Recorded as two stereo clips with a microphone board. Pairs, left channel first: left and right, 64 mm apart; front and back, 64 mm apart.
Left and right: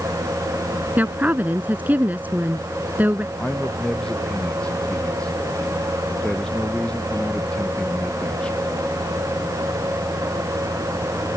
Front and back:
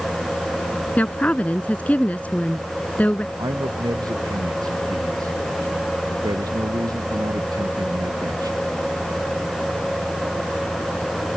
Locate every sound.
1.0 s a woman speaking: 50° right
3.4 s a man speaking: 165° left